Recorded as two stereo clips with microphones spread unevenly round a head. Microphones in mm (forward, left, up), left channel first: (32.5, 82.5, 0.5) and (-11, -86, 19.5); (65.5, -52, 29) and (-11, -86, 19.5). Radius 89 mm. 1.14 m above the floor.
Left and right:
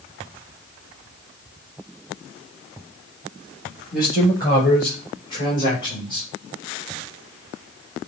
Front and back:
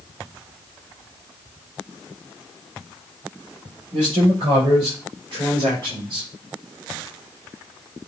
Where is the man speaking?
145° left, 6 m; by 6.3 s 140° left, 3 m.